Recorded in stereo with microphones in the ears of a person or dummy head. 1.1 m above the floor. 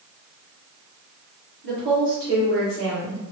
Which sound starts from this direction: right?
A woman speaking, at 1.6 s.